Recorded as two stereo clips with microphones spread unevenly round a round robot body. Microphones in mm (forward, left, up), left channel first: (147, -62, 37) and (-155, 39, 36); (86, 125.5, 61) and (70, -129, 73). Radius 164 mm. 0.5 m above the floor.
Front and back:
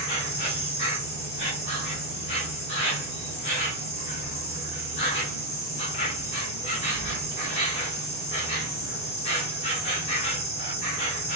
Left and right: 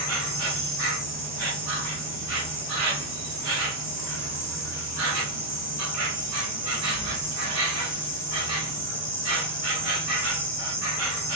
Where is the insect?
85° right, 1.7 m.